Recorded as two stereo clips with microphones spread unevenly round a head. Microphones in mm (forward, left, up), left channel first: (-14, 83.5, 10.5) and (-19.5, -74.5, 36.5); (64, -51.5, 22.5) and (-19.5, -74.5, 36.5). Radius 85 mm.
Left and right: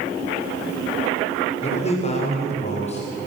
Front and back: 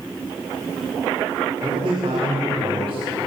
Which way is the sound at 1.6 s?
140° left.